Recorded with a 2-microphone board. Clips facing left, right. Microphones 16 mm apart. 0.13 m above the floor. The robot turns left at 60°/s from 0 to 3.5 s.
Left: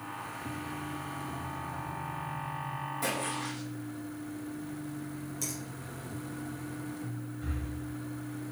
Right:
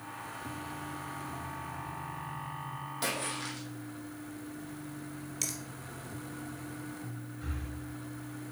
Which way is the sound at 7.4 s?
15° right (ahead or behind).